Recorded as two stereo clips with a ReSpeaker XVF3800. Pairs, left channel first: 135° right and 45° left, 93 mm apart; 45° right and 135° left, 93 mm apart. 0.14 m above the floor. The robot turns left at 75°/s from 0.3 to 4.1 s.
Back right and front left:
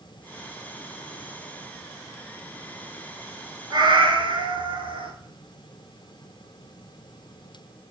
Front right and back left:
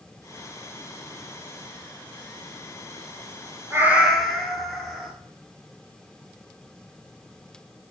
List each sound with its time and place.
3.7 s a cat meowing: 75° left, 1.1 m; by 5.1 s 45° left, 1.1 m